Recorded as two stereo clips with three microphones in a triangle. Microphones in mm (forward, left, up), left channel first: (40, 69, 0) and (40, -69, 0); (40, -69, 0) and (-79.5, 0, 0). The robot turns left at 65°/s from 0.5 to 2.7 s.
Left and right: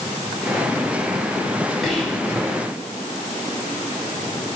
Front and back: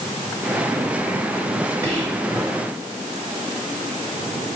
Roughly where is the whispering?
Behind.